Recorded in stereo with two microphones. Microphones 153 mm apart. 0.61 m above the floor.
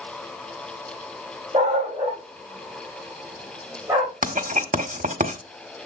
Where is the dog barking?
35° right (ahead or behind), 6 m; by 4.1 s 20° right (ahead or behind), 7.5 m.